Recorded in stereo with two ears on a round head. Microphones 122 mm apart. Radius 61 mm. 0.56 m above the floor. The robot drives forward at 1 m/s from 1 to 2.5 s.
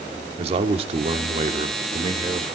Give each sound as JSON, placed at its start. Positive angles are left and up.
{"t": 0.4, "sound": "a man speaking", "side_deg": -45, "distance_m": 1.5}